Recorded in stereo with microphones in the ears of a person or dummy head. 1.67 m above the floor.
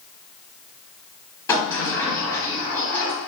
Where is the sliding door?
10° left (ahead or behind), 1.2 m.